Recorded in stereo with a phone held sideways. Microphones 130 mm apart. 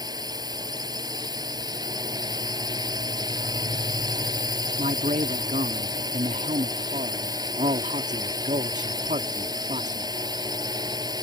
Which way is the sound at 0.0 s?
30° right (ahead or behind).